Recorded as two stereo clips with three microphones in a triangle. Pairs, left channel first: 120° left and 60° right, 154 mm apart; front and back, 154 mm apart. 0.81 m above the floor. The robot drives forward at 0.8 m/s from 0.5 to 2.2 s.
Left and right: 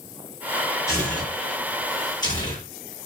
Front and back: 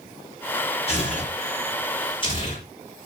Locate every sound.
0.9 s tearing paper: 50° left, 6.5 m; by 2.6 s 55° left, 6 m